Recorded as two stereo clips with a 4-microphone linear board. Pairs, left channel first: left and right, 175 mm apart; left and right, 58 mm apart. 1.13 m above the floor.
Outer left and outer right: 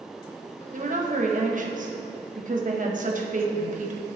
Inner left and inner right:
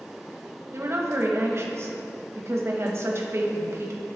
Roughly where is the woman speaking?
Right.